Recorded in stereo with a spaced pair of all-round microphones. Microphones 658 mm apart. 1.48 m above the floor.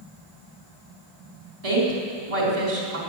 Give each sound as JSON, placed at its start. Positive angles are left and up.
{"t": 1.6, "sound": "a woman speaking", "side_deg": -65, "distance_m": 4.0}